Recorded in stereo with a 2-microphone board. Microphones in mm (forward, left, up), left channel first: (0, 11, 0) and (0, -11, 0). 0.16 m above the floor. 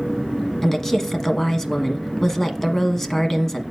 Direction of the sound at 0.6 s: 20° left (ahead or behind).